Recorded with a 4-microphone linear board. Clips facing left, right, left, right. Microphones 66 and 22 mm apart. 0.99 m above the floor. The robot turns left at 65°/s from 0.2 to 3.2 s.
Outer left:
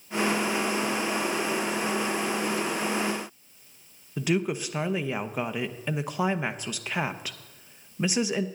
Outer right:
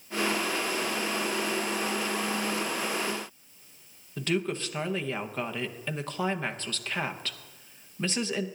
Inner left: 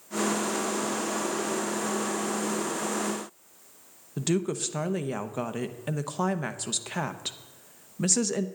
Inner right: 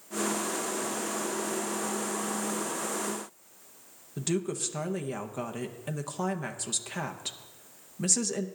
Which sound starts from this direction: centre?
A woman speaking, at 4.2 s.